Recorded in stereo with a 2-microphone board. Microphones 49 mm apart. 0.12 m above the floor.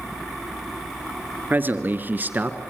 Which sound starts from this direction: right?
A man speaking, at 1.5 s.